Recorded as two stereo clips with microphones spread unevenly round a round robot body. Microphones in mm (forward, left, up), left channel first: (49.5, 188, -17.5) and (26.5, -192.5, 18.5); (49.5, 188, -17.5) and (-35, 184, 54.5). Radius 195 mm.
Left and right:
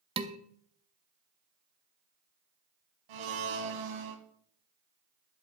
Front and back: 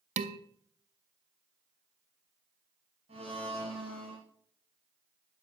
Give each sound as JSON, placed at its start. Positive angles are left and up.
{"t": 0.2, "sound": "dishes clattering", "azimuth_deg": -170, "distance_m": 0.6}
{"t": 3.1, "sound": "a blender", "azimuth_deg": -115, "distance_m": 2.0}